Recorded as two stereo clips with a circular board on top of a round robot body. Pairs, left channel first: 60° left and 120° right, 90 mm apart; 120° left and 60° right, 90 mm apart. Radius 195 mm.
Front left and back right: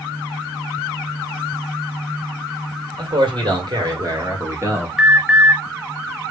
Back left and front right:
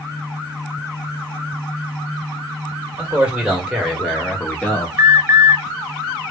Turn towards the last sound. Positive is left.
turn(degrees=-50)